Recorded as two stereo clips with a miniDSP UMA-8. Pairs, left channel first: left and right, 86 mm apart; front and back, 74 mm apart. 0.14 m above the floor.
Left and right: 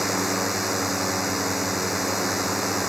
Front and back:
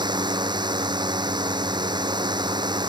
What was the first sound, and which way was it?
A drone, straight behind.